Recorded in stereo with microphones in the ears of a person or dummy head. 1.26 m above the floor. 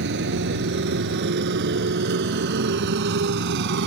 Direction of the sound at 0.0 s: 60° right (ahead or behind).